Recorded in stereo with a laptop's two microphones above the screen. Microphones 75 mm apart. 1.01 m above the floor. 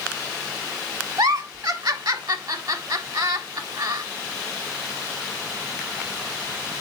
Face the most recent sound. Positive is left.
turn(degrees=-65)  # may be behind; listen again after turning